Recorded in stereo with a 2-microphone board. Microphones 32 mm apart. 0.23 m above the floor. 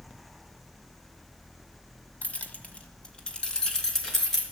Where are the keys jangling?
40° left (ahead or behind), 1.3 m; by 4.4 s 10° left (ahead or behind), 3 m.